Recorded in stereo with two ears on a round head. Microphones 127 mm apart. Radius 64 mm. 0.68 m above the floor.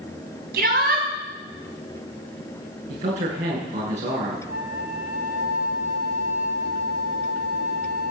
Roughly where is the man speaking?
Right.